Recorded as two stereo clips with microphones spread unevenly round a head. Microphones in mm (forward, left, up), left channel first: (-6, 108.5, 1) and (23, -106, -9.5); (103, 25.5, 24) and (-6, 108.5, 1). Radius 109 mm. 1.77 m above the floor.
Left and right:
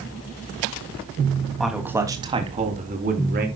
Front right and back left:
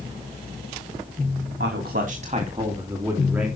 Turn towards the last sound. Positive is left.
turn(degrees=-130)